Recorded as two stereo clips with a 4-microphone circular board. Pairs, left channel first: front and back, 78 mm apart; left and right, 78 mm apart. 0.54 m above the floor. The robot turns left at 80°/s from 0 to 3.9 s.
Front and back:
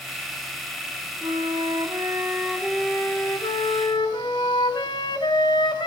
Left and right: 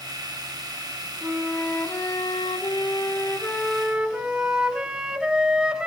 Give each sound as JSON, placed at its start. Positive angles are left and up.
{"t": 1.2, "sound": "a flute", "azimuth_deg": -155, "distance_m": 2.5}